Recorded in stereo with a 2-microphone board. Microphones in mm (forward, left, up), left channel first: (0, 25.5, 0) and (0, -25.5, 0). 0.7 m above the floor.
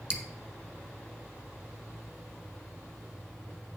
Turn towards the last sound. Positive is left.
turn(degrees=-15)  # may be behind; listen again after turning